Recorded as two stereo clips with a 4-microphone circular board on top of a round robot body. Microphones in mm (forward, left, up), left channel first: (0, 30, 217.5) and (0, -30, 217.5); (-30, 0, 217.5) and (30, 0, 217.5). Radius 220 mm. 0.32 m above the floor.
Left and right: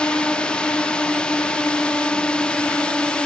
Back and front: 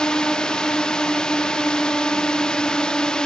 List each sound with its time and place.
0.0 s a drone: 130° left